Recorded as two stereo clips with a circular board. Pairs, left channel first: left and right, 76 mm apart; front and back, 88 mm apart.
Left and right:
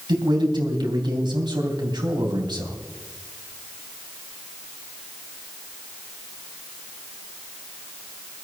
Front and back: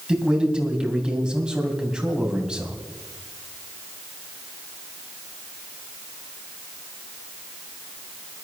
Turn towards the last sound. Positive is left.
turn(degrees=-100)